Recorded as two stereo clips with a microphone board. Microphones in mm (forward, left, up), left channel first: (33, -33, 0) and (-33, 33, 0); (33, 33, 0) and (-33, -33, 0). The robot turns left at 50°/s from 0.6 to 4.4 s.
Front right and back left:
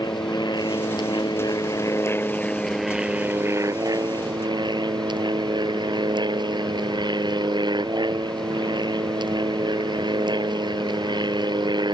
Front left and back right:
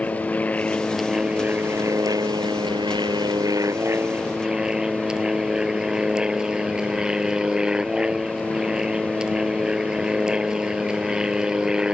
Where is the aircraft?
25° right; by 11.9 s 145° left.